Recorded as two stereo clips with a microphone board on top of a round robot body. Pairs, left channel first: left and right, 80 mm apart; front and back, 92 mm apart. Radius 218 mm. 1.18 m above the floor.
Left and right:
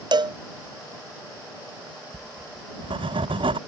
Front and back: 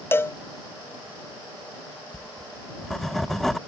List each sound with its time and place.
0.1 s a cowbell: 65° right
2.1 s writing: 90° right